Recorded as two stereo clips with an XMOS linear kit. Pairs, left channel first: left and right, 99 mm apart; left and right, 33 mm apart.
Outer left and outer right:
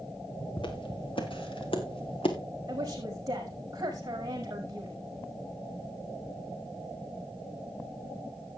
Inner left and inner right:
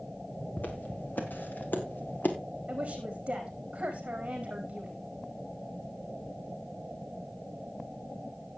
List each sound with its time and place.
0.6 s footsteps: 65° left (ahead or behind), 3.5 m; by 2.4 s 75° left (ahead or behind), 2.5 m
2.7 s a woman speaking: 40° right (ahead or behind), 5 m